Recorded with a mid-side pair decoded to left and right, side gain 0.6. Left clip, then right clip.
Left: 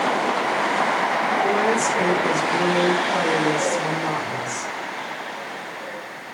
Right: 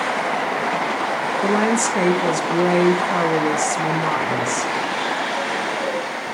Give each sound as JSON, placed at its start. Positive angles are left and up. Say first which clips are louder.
{"t": 1.4, "sound": "a woman speaking", "louder": "right 1 dB", "azimuth_deg": -50, "distance_m": 1.9}